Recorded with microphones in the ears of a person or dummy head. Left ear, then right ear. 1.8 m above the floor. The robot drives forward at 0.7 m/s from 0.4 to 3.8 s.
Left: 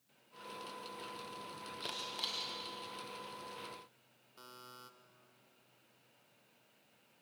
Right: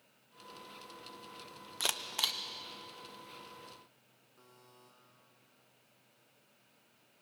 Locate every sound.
1.8 s a camera shutter: 35° right (ahead or behind), 0.9 m; by 2.4 s 25° right (ahead or behind), 1.3 m
4.4 s a buzzer: 55° left (ahead or behind), 1.3 m